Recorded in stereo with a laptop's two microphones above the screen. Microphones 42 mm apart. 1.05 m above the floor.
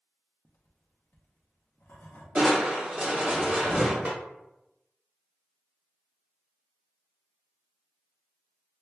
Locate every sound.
0.5 s writing: 50° left (ahead or behind), 0.6 m
2.4 s crushing: 35° right (ahead or behind), 0.8 m
4.0 s a snare drum: 40° right (ahead or behind), 0.9 m